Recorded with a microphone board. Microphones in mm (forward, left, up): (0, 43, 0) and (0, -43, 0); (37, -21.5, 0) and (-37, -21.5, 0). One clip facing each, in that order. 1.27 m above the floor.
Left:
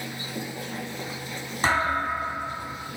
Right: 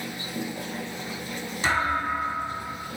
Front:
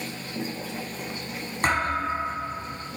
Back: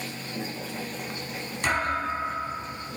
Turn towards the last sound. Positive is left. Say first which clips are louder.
# left 1 dB, front 2 dB
turn(degrees=45)